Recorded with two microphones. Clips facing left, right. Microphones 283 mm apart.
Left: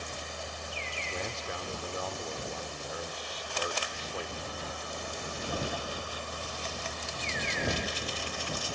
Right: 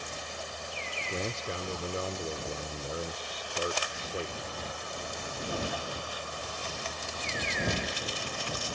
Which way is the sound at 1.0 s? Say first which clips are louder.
Right 4 dB; 30° right (ahead or behind).